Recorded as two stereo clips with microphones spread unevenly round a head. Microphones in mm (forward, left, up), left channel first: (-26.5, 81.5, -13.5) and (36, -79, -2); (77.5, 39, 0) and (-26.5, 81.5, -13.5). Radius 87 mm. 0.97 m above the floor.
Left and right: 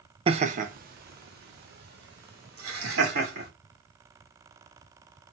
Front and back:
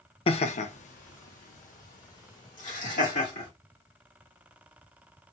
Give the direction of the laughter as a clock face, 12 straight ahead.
1 o'clock.